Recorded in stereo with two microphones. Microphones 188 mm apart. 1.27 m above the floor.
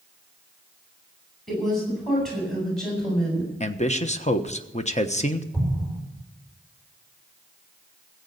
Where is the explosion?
10° left (ahead or behind), 5 m.